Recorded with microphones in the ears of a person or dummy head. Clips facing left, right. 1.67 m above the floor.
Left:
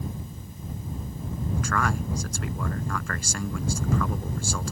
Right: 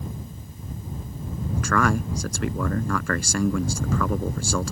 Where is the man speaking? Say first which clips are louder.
Right 6 dB; 50° right (ahead or behind).